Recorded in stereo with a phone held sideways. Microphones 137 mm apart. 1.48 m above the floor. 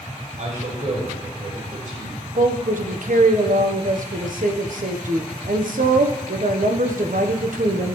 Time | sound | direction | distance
0.4 | a man speaking | 70° right (ahead or behind) | 4.5 m
2.4 | a woman speaking | 70° right (ahead or behind) | 0.9 m